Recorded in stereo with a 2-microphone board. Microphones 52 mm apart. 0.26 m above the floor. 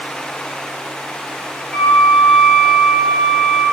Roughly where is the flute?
Centre.